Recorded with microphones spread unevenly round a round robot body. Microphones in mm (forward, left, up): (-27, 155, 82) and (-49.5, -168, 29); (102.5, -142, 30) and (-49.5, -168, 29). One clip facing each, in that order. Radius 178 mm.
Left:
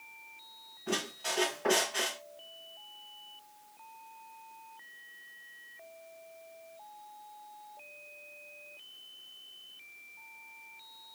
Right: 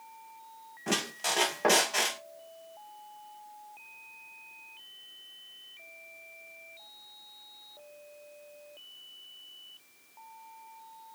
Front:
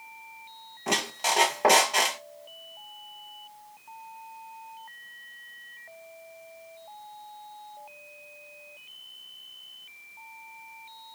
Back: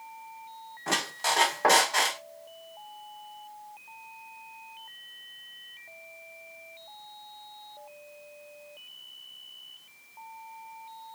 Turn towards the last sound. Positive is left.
turn(degrees=-60)